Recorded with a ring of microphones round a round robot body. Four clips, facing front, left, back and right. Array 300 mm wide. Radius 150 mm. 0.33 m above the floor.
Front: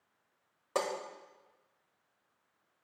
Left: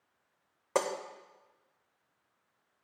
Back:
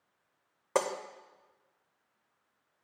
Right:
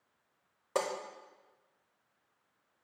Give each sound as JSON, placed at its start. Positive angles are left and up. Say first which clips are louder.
{"t": 0.8, "sound": "breaking glass", "louder": "left 3 dB, back 3 dB", "azimuth_deg": 150, "distance_m": 0.6}